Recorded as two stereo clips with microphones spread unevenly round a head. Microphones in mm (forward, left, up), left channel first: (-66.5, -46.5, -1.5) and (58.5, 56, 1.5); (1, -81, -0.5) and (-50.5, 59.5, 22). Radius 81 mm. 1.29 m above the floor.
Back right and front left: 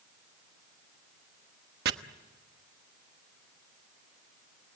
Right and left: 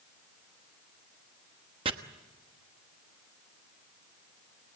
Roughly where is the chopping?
Ahead left.